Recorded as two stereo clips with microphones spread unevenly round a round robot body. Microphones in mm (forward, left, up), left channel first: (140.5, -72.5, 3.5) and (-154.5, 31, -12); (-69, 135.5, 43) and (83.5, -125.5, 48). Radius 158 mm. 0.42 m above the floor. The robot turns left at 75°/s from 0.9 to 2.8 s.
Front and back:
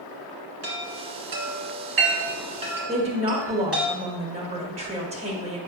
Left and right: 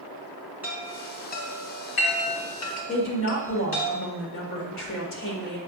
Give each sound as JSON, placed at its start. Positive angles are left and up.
{"t": 0.6, "sound": "a chime", "azimuth_deg": -145, "distance_m": 1.8}
{"t": 2.9, "sound": "a woman speaking", "azimuth_deg": 100, "distance_m": 1.9}